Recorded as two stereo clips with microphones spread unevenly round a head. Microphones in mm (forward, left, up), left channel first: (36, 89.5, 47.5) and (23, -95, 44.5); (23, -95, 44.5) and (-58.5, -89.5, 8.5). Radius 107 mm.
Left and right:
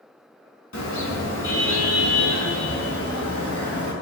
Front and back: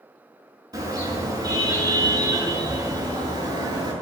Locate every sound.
0.7 s a car horn: 110° left, 5.5 m; by 3.9 s 125° left, 7.5 m